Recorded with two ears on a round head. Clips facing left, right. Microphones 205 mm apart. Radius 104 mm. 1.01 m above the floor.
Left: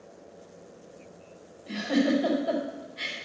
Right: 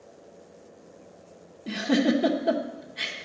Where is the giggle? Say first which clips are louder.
Right 2 dB; 65° right (ahead or behind), 1.0 m.